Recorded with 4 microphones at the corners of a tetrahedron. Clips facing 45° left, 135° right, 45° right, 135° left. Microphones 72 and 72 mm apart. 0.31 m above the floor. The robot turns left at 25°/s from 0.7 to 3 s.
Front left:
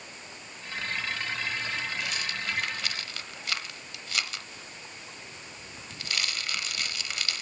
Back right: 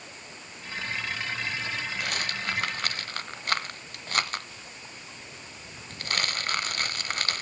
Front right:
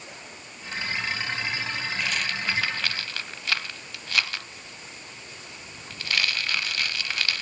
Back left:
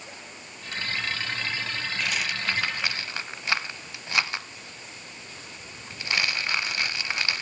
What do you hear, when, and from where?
2.0 s a rattle: 140° right, 0.7 m; by 7.4 s 165° right, 0.7 m